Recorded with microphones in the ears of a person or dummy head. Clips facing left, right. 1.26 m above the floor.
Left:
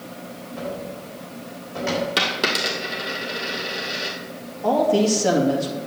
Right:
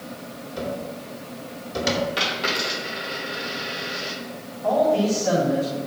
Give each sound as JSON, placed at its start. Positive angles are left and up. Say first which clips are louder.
{"t": 0.6, "sound": "a cupboard door", "louder": "right 1 dB", "side_deg": -55, "distance_m": 3.5}
{"t": 2.2, "sound": "a dropped coin", "louder": "left 2 dB", "side_deg": 50, "distance_m": 2.0}
{"t": 4.6, "sound": "a man speaking", "louder": "left 1 dB", "side_deg": 75, "distance_m": 2.5}